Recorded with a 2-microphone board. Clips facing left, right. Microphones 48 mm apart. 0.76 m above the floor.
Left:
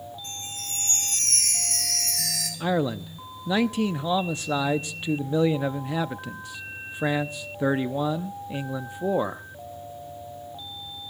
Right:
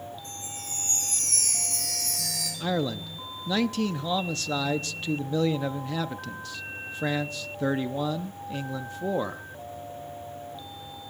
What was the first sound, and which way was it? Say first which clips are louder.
A chime: left 2 dB; 90° left.